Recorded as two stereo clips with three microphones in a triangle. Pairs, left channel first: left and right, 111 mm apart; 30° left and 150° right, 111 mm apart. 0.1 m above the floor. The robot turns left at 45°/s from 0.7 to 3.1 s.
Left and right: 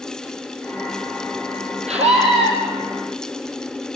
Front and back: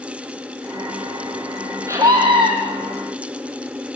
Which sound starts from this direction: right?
A scream, at 1.9 s.